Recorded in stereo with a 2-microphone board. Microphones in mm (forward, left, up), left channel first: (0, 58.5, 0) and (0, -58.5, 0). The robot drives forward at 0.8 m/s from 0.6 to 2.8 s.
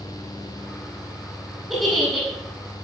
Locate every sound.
1.7 s a giggle: centre (ahead or behind), 5.5 m